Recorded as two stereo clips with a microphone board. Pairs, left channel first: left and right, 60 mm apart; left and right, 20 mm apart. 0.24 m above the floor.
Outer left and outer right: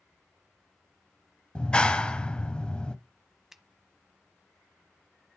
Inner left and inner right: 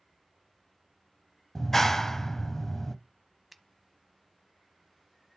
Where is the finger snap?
10° right (ahead or behind), 1.0 m.